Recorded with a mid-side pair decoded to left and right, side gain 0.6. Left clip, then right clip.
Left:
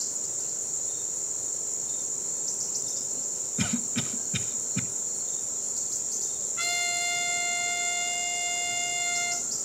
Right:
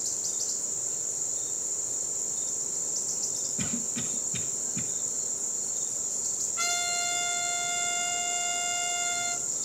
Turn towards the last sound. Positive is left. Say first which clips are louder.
# left 2 dB
turn(degrees=0)